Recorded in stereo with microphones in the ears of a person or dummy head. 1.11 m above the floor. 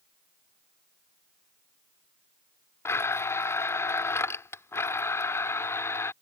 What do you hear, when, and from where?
2.9 s a blender: 20° left (ahead or behind)